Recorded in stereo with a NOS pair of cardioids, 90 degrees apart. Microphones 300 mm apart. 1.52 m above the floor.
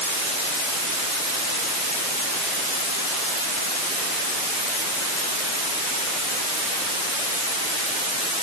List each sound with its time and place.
Only background noise.